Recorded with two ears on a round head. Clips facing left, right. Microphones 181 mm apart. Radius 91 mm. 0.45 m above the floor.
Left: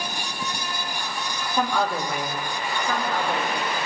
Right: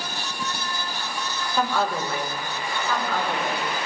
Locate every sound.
1.6 s a woman speaking: 20° left (ahead or behind), 3.5 m